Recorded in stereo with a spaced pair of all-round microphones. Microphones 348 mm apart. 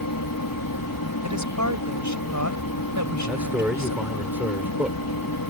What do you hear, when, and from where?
0.0 s a fan: 75° left (ahead or behind)
1.2 s a woman speaking: 55° right (ahead or behind)
3.3 s a man speaking: 5° right (ahead or behind)